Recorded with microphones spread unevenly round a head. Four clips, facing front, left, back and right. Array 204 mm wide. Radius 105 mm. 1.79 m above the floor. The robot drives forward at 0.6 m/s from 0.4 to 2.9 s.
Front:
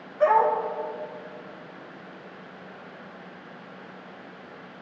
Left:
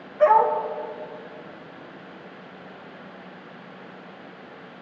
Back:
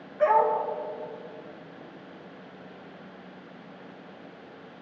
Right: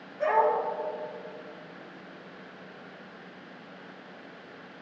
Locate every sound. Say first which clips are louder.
0.2 s a dog barking: left 7 dB, front 2 dB; 90° left, 3.5 m